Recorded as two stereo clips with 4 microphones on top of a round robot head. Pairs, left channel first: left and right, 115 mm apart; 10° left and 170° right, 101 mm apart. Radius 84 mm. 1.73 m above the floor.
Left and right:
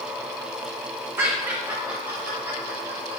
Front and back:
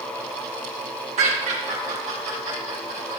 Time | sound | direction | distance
1.2 | laughter | 165° right | 1.9 m